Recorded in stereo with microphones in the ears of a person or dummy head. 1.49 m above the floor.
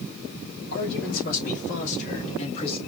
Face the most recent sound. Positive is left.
turn(degrees=35)  # may be behind; listen again after turning